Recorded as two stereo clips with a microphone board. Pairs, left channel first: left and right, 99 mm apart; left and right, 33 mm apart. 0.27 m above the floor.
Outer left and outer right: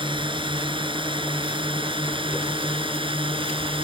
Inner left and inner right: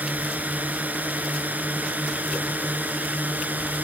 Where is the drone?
55° right (ahead or behind); by 3.9 s 60° right (ahead or behind).